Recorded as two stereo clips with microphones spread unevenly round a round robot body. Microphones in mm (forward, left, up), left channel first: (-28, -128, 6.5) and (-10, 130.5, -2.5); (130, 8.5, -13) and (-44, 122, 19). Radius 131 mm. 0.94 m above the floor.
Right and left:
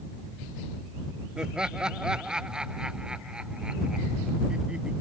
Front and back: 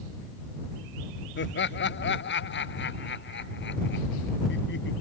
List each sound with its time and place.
1.4 s laughter: straight ahead